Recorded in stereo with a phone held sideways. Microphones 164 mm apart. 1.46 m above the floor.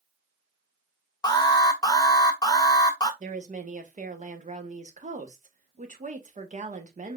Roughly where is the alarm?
Left.